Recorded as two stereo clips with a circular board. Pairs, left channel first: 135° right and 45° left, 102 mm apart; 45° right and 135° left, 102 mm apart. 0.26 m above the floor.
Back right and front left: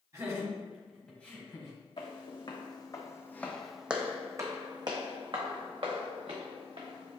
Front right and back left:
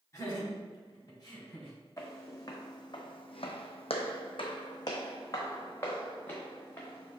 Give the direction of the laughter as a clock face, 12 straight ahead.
12 o'clock.